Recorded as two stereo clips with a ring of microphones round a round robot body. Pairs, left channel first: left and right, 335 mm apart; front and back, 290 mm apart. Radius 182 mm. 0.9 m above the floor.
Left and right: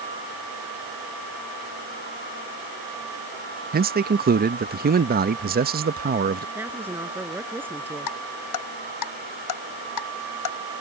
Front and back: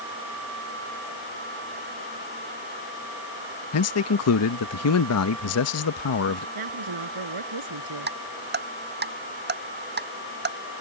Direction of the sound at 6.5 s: 175° right.